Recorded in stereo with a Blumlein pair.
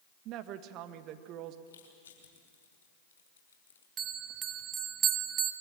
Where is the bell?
25° right, 1.1 m.